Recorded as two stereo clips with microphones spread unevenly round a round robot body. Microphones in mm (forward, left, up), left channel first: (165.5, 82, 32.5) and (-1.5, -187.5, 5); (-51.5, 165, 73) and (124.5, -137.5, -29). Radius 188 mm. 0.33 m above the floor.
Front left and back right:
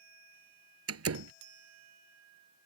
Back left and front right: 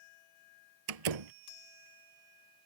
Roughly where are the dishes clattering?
No dishes clattering in this recording.